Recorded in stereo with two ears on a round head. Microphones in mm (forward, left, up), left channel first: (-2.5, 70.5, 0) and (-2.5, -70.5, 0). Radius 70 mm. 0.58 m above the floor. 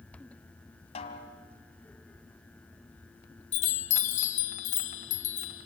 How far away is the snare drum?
About 2.5 m.